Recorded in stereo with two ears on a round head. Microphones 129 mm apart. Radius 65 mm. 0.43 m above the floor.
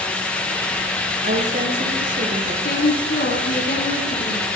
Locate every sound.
1.2 s a woman speaking: 55° right (ahead or behind), 6 m
2.6 s a woman speaking: 65° left (ahead or behind), 5 m